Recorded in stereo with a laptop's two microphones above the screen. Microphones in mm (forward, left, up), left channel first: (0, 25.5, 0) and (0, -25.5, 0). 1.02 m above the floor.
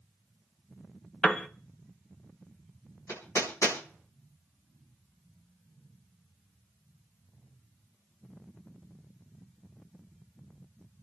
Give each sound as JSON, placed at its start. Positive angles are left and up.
{"t": 1.2, "sound": "a piano", "side_deg": 15, "distance_m": 1.0}
{"t": 3.1, "sound": "hammering", "side_deg": 80, "distance_m": 8.0}